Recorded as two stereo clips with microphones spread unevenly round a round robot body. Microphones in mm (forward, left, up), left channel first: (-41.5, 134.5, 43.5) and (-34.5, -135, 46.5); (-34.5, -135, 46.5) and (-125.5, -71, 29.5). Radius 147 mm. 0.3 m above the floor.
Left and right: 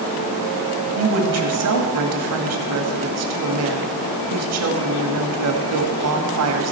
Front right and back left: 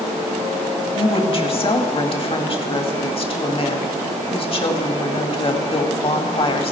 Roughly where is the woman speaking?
Right.